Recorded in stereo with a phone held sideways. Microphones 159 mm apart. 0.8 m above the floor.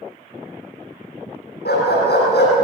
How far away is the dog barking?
About 8 m.